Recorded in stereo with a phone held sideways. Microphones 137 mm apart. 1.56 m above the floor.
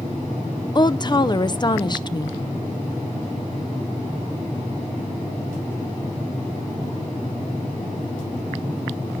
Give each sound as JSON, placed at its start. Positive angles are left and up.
{"t": 0.8, "sound": "a woman speaking", "side_deg": 35, "distance_m": 0.6}